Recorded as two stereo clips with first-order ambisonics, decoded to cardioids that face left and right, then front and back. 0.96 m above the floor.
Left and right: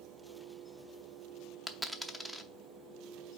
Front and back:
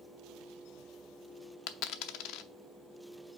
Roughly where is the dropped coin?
Ahead.